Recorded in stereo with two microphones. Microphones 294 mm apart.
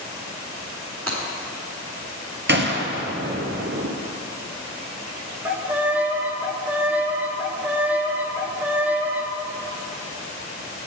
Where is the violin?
5° right (ahead or behind), 0.8 m.